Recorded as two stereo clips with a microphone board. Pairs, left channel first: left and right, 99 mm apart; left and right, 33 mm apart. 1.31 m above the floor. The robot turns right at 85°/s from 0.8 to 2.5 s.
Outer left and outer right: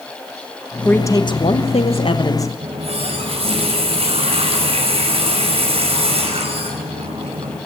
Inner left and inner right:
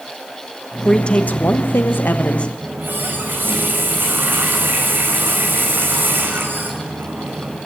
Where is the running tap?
85° right, 5 m.